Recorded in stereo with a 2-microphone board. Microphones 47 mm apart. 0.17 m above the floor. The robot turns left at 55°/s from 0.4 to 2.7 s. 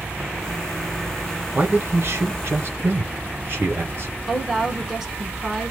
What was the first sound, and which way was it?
A man speaking, 50° right.